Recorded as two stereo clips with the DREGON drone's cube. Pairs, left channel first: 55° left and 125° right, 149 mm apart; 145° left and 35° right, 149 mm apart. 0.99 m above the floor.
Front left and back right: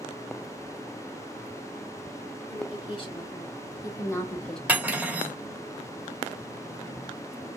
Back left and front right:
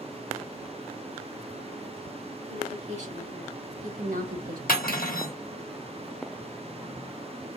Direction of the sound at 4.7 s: 155° left.